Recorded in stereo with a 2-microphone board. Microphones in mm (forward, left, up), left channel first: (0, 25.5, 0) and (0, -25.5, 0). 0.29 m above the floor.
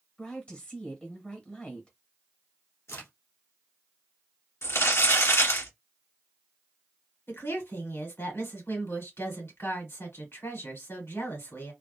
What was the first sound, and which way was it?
A woman speaking, 25° left (ahead or behind).